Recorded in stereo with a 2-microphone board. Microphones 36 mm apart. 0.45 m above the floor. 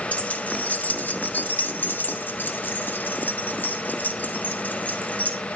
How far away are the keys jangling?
About 1.8 m.